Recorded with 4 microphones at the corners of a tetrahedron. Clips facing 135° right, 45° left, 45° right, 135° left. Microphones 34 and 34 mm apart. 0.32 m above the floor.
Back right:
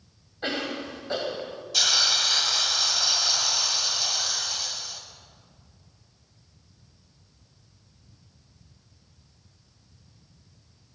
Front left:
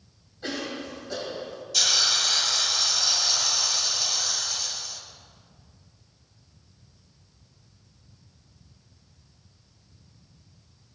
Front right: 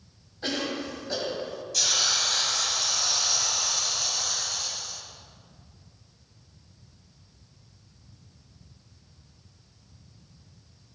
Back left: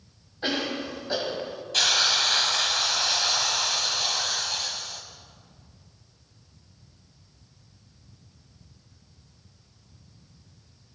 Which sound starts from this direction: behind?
A cough, at 0.4 s.